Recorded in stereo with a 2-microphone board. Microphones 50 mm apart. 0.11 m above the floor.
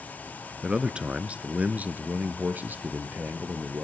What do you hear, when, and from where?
0.6 s a man speaking: 15° right (ahead or behind), 1.1 m; by 3.9 s 40° right (ahead or behind), 2 m